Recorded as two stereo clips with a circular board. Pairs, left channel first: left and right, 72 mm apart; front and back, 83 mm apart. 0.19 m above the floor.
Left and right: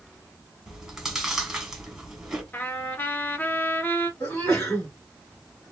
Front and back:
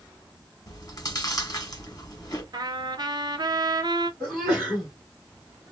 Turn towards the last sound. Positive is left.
turn(degrees=100)